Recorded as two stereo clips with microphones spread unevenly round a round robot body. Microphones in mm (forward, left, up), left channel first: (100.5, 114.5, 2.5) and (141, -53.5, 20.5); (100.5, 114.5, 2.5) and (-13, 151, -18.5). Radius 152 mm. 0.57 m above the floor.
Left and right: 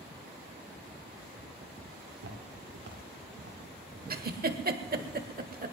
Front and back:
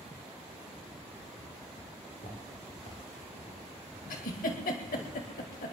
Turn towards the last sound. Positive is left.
turn(degrees=-45)